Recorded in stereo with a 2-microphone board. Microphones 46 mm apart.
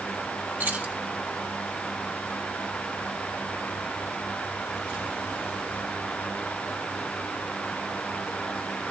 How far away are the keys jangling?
About 1.5 m.